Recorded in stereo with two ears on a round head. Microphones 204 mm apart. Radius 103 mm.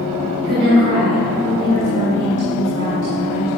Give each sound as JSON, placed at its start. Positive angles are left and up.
{"t": 0.4, "sound": "a woman speaking", "side_deg": -85, "distance_m": 3.5}